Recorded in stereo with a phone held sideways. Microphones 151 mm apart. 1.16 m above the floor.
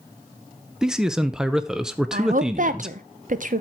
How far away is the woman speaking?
About 0.8 m.